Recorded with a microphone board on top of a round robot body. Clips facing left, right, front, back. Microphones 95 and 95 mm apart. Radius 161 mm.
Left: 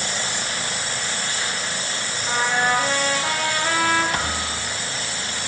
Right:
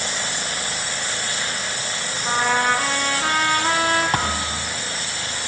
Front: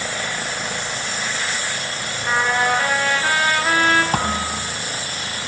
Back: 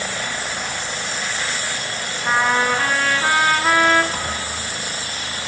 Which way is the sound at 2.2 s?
130° right.